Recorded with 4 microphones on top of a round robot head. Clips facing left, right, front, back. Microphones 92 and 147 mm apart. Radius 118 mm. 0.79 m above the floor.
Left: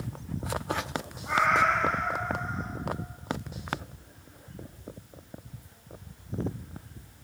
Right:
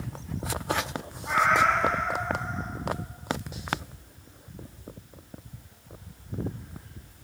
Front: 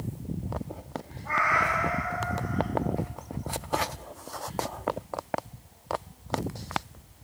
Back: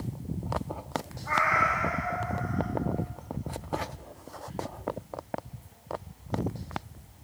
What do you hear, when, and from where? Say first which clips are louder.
1.2 s a cat meowing: right 2 dB, front 1 dB; 65° right, 9 m